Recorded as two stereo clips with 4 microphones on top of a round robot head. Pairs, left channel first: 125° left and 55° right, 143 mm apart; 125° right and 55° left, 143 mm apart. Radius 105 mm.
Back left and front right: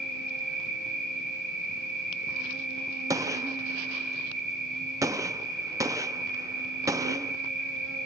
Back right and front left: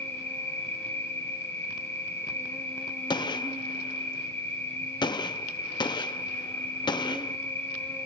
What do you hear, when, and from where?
0.0 s an insect: 50° right, 4 m
3.1 s a gunshot: 100° right, 0.5 m